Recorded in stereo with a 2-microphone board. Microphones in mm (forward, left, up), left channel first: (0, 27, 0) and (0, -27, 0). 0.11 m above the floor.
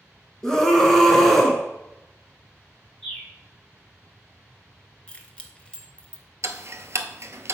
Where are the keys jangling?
20° left (ahead or behind), 0.8 m.